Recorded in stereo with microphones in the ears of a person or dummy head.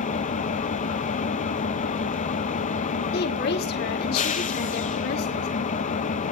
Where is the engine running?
35° left (ahead or behind), 1.0 m.